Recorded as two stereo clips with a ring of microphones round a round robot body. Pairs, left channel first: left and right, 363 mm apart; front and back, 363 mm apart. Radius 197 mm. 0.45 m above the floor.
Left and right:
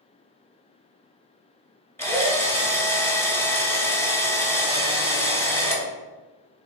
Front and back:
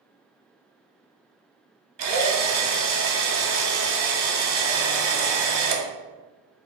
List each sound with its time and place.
2.0 s a drill: 170° left, 0.9 m